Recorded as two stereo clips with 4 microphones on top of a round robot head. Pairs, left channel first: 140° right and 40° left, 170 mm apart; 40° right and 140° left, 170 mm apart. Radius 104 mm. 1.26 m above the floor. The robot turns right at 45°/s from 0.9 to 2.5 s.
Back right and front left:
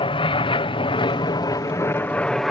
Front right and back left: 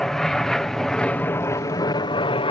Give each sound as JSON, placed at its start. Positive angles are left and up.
{"t": 0.0, "sound": "an aircraft", "azimuth_deg": -125}